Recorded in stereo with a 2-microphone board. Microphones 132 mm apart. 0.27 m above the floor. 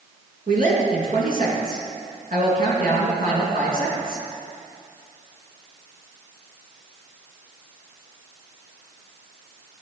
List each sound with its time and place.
0.5 s a woman speaking: 70° right (ahead or behind), 3 m